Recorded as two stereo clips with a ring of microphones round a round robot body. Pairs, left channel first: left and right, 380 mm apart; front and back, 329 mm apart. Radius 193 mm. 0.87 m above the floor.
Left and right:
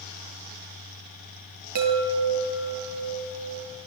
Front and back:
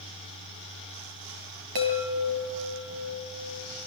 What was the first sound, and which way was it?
A chime, 135° right.